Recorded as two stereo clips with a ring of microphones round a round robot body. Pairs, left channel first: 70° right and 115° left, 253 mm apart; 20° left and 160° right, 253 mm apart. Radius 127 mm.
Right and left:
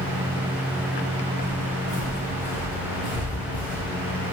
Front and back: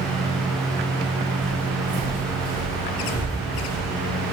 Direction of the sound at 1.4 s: 95° right.